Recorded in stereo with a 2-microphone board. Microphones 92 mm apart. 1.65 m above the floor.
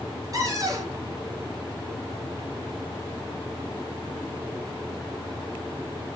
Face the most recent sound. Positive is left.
turn(degrees=-40)  # may be behind; listen again after turning